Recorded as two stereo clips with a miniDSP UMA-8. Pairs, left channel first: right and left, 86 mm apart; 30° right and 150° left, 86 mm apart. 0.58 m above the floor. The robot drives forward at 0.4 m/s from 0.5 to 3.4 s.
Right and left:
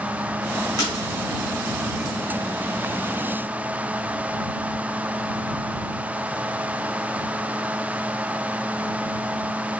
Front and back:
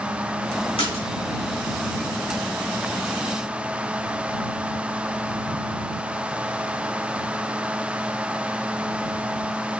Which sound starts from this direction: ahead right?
A splash, at 0.8 s.